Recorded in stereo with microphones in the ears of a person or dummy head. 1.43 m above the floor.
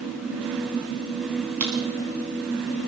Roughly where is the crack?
Centre.